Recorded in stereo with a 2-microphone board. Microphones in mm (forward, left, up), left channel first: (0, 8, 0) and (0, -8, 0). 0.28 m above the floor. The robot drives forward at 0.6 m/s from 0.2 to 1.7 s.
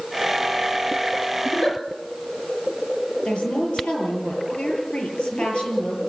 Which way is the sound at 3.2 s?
70° left (ahead or behind).